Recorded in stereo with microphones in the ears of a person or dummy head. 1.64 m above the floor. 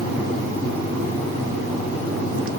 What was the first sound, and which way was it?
Only background noise.